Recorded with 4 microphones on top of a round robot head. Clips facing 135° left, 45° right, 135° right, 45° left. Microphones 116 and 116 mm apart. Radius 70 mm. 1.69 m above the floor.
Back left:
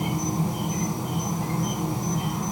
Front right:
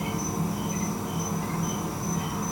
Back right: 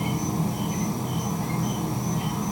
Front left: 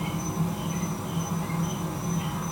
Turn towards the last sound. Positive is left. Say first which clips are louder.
# back left 3 dB, back right 3 dB
turn(degrees=-175)